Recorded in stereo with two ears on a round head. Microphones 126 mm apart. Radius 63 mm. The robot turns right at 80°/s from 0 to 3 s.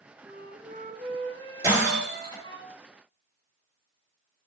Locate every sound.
0.2 s a flute: 145° right, 1.7 m; by 2.6 s 45° left, 1.7 m
1.6 s breaking glass: 20° right (ahead or behind), 5 m; by 2.4 s 40° left (ahead or behind), 5 m